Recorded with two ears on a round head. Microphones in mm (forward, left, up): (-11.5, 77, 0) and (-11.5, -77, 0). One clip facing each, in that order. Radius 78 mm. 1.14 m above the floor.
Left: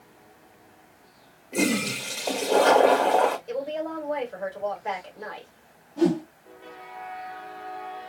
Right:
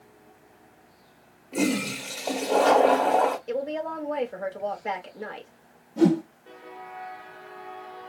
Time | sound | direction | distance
1.5 | a toilet flushing | centre (ahead or behind) | 0.9 m
3.5 | a woman speaking | 30° right (ahead or behind) | 1.4 m
6.0 | a whoosh | 55° right (ahead or behind) | 1.5 m